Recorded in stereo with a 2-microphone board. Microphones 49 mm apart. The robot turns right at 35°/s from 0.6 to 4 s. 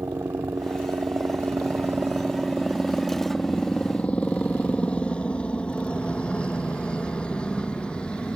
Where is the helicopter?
75° right (ahead or behind); by 8.4 s 15° left (ahead or behind).